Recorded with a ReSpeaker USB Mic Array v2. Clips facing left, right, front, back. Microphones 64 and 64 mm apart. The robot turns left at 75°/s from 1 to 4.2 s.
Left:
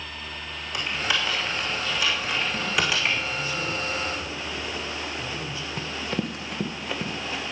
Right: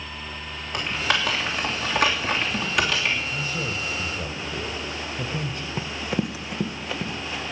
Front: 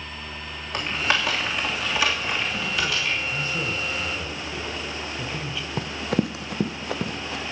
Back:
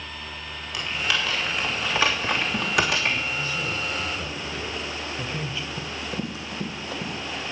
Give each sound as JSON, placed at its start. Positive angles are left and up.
{"t": 0.7, "sound": "typing on a keyboard", "azimuth_deg": -50, "distance_m": 3.0}
{"t": 3.3, "sound": "a man speaking", "azimuth_deg": -25, "distance_m": 2.0}
{"t": 5.8, "sound": "running footsteps", "azimuth_deg": -15, "distance_m": 0.9}